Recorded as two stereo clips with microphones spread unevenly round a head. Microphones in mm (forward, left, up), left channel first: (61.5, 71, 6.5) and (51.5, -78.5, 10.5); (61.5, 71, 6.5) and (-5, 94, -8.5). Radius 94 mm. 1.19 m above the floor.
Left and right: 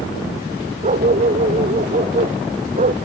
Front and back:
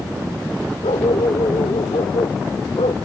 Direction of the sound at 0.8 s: 55° right.